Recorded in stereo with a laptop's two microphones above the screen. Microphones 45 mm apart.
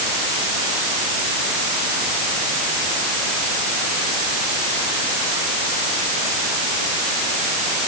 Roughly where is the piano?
I don't hear a piano.